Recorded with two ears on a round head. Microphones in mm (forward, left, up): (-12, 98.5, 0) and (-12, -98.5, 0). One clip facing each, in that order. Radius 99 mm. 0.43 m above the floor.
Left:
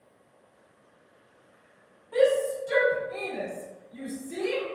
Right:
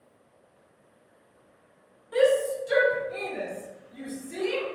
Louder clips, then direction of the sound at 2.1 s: Right 1 dB; 20° right (ahead or behind).